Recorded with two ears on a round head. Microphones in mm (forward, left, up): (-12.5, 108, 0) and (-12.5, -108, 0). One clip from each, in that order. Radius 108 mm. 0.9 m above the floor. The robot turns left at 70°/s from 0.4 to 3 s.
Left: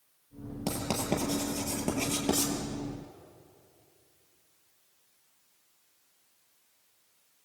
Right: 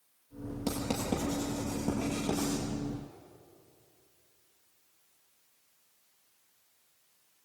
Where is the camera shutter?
No camera shutter in this recording.